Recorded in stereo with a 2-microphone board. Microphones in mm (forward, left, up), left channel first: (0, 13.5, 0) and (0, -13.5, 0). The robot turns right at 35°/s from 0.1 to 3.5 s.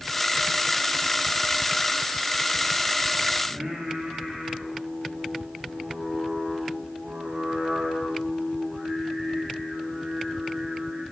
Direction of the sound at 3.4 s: 35° right (ahead or behind).